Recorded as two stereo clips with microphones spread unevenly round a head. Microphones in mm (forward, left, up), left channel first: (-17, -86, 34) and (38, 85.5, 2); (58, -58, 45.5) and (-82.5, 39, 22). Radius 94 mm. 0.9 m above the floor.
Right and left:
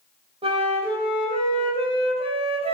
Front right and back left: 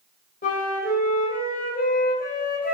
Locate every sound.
0.4 s a flute: 10° left, 2.5 m